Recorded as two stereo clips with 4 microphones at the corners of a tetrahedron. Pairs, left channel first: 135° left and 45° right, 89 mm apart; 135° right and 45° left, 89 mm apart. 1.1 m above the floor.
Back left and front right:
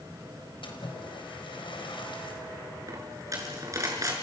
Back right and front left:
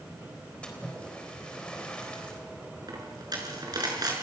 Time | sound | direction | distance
0.6 | a splash | 145° left | 4 m
2.9 | a dropped coin | 5° left | 5.5 m